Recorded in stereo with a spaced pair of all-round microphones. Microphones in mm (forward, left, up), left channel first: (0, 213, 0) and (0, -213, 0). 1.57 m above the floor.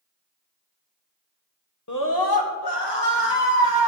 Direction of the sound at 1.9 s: 40° left (ahead or behind).